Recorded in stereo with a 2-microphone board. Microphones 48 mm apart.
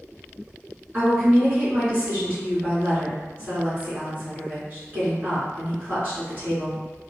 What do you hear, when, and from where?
0.9 s a woman speaking: 30° right (ahead or behind), 1.9 m